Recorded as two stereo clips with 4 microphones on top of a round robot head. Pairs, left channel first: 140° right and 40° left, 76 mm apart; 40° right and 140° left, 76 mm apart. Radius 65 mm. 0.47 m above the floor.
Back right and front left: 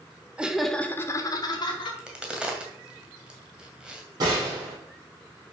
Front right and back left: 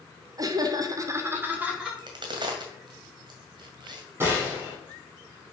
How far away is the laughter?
About 1.4 m.